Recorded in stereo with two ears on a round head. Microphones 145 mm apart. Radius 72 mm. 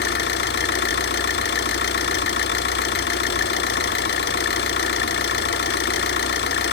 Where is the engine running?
70° left (ahead or behind), 1.3 m.